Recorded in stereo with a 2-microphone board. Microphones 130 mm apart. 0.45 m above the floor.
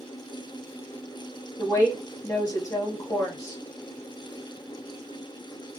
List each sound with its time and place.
1.6 s a woman speaking: 25° left (ahead or behind), 0.9 m